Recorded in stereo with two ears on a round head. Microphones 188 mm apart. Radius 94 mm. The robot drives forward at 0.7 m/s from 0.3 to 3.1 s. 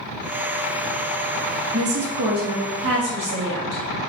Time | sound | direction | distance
1.7 | a woman speaking | 75° right (ahead or behind) | 1.5 m